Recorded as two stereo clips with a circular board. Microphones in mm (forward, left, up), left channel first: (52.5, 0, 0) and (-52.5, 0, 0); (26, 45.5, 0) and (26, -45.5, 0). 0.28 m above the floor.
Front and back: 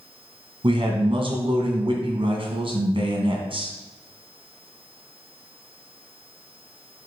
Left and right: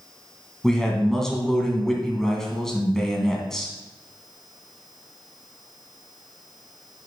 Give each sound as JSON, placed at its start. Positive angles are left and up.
{"t": 0.6, "sound": "a man speaking", "azimuth_deg": 175, "distance_m": 2.0}